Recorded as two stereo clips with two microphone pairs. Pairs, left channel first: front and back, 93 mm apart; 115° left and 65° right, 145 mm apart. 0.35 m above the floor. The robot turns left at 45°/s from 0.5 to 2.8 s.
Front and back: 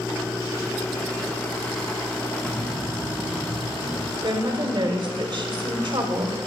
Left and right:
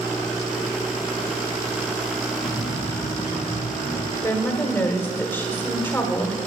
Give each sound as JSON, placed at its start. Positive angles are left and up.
{"t": 2.4, "sound": "a bird", "azimuth_deg": 120, "distance_m": 1.8}
{"t": 4.2, "sound": "a woman speaking", "azimuth_deg": 180, "distance_m": 1.2}